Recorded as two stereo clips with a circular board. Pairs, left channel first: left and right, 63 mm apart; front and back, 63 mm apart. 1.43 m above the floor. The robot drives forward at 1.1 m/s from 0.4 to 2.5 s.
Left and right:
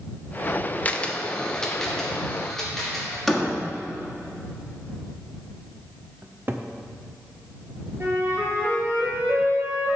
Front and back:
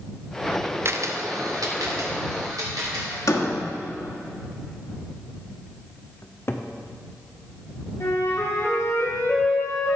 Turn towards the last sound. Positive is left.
turn(degrees=-40)